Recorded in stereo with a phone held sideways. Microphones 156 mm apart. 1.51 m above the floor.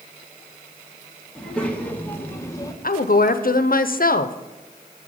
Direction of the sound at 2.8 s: 65° left (ahead or behind).